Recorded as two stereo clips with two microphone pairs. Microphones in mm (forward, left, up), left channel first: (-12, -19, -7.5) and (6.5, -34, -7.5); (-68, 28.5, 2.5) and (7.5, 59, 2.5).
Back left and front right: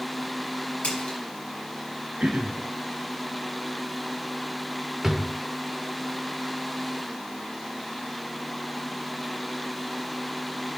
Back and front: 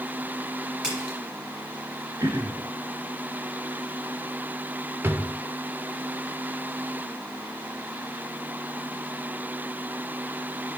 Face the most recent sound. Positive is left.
turn(degrees=15)